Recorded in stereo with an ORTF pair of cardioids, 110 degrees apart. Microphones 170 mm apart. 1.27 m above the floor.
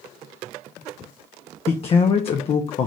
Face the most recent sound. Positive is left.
turn(degrees=35)